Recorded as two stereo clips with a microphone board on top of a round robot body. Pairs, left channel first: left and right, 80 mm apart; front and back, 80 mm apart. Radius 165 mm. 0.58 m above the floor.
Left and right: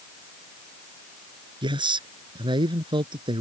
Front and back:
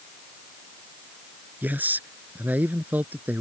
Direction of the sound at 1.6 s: 110° right.